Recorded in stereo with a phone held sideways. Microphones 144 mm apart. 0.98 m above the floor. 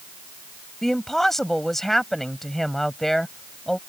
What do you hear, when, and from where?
0.8 s a woman speaking: 5° left (ahead or behind)